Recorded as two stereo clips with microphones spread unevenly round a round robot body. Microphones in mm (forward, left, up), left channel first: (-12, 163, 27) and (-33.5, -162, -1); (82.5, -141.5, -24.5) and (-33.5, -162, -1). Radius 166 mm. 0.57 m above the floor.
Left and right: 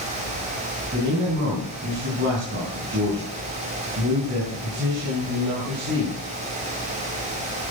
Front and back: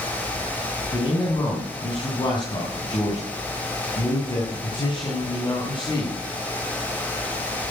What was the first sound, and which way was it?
A man speaking, 35° right.